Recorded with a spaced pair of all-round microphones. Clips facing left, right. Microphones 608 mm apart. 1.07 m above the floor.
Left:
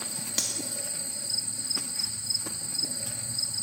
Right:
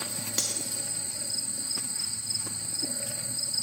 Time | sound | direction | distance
0.4 | cutlery clinking | 20° left (ahead or behind) | 0.7 m